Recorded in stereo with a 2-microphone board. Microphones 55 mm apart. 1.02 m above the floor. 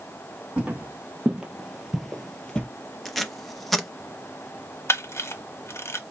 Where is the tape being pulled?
Centre (ahead or behind), 0.7 m.